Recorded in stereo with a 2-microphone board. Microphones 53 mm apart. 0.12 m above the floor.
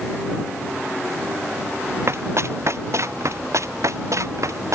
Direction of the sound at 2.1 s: 55° right (ahead or behind).